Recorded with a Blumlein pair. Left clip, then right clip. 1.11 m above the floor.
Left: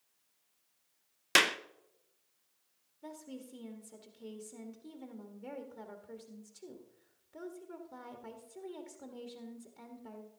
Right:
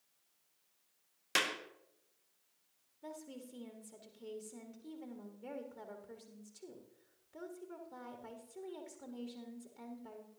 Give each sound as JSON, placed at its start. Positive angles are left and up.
{"t": 1.4, "sound": "a clap", "azimuth_deg": 65, "distance_m": 0.6}
{"t": 3.0, "sound": "a woman speaking", "azimuth_deg": 5, "distance_m": 1.5}